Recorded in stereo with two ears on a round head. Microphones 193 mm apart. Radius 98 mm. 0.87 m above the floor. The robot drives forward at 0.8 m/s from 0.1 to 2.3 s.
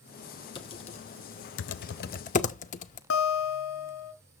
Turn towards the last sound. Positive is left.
turn(degrees=65)  # may be behind; listen again after turning